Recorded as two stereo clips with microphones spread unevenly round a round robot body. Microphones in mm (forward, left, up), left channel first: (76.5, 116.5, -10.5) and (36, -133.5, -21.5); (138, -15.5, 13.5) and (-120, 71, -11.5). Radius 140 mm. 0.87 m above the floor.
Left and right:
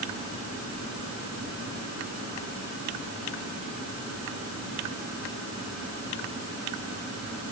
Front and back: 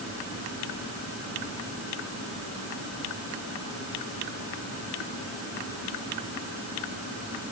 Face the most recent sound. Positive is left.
No sound to turn to.